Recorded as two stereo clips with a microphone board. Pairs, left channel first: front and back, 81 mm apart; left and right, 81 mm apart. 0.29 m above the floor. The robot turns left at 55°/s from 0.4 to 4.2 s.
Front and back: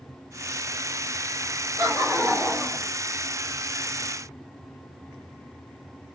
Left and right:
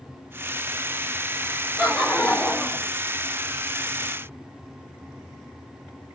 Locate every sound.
1.8 s laughter: 155° right, 1.1 m; by 2.9 s 145° left, 1.1 m